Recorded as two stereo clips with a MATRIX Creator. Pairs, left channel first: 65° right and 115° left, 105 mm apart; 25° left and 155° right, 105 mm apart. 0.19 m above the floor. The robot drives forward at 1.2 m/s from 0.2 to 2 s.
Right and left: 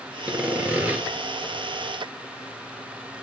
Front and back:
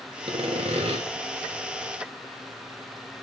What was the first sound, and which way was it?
Sawing, 170° right.